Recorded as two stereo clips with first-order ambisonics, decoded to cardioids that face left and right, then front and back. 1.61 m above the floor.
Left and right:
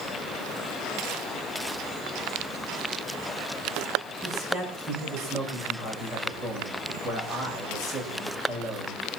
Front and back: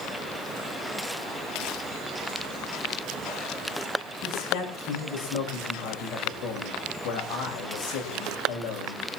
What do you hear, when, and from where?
4.2 s a man speaking: 20° right, 6.5 m